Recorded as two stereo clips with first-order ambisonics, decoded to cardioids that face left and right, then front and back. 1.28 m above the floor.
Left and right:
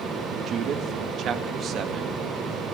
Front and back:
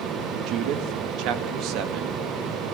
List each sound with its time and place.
0.5 s a man speaking: 145° right, 1.9 m